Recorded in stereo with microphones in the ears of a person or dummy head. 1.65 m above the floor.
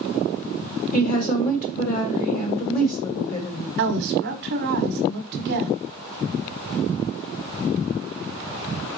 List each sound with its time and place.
0.9 s a woman speaking: 50° left (ahead or behind), 1.7 m
3.8 s a woman speaking: 55° right (ahead or behind), 0.9 m